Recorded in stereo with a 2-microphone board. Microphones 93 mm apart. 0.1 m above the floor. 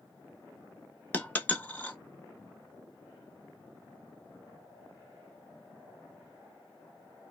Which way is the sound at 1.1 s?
15° left (ahead or behind).